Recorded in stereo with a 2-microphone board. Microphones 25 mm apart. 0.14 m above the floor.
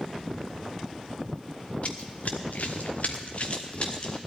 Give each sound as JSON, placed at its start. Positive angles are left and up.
{"t": 1.8, "sound": "running footsteps", "side_deg": 55, "distance_m": 1.8}